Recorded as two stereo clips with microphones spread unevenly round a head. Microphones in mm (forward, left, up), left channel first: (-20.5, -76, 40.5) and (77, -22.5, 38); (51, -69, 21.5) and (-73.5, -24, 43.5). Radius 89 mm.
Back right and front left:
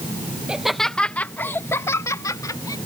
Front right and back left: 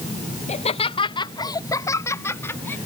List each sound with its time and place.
0.5 s laughter: 55° right; by 2.8 s 95° right